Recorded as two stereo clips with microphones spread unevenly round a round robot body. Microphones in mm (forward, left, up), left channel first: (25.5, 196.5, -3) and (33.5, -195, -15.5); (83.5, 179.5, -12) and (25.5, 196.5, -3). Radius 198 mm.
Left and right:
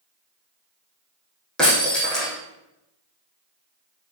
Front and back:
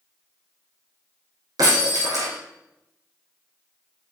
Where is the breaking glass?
Straight behind, 3.5 m.